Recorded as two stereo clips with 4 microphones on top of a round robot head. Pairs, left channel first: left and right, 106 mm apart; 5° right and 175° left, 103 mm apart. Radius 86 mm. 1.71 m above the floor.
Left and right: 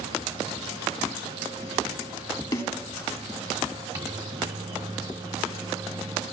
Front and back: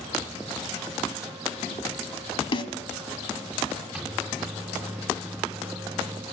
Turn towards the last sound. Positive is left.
turn(degrees=-110)